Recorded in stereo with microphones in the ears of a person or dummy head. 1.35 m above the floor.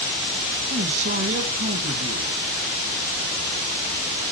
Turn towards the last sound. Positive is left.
turn(degrees=-50)  # may be behind; listen again after turning